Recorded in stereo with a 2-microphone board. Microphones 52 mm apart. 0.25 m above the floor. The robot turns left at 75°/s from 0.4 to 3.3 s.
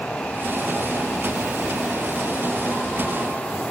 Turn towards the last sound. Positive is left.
No sound to turn to.